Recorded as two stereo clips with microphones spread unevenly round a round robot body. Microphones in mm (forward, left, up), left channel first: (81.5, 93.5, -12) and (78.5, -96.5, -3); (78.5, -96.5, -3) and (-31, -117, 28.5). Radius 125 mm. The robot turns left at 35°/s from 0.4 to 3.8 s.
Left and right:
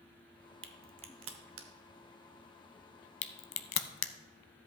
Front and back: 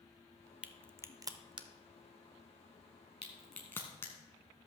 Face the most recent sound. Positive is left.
turn(degrees=95)